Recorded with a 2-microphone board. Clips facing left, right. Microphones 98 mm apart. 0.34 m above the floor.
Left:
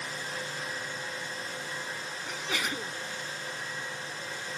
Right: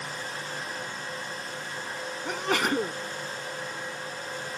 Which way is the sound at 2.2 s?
60° right (ahead or behind).